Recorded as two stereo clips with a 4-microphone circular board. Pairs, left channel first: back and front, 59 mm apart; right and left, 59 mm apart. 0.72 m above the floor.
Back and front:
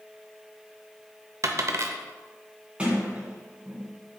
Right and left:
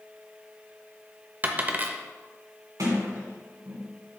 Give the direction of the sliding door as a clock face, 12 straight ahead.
10 o'clock.